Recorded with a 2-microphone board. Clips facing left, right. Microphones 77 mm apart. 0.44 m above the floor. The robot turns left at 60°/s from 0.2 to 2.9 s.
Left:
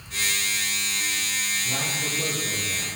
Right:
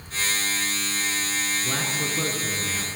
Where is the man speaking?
50° right, 5.5 m; by 2.9 s 125° right, 5.5 m.